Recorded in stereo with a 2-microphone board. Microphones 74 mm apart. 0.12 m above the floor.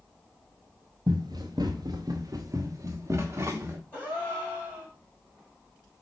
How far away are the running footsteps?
About 1.0 m.